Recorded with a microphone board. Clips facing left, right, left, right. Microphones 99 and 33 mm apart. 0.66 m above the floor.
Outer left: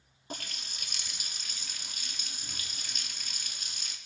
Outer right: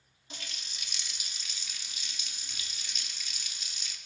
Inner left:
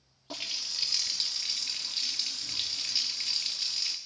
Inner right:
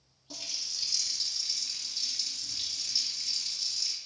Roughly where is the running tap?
Left.